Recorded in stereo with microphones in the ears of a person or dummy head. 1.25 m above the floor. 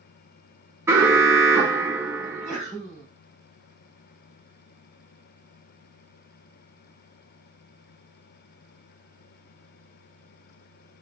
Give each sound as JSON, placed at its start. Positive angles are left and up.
{"t": 0.9, "sound": "an alarm", "side_deg": -15, "distance_m": 0.6}
{"t": 2.2, "sound": "a sneeze", "side_deg": 25, "distance_m": 1.9}